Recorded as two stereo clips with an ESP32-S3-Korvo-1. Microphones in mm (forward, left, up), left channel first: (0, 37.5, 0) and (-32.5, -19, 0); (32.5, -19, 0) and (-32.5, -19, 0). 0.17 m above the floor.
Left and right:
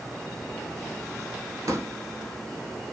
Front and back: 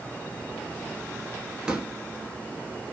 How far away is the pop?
About 0.7 m.